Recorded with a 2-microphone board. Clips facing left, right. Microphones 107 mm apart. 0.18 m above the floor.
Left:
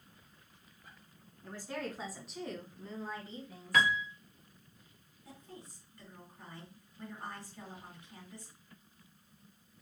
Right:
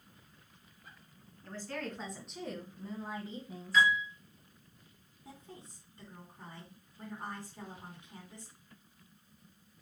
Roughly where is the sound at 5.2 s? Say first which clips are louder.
Even; right.